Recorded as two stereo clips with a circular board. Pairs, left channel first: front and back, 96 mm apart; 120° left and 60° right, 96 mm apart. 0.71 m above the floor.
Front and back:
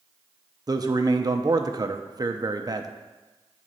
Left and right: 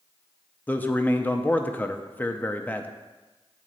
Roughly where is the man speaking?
Behind.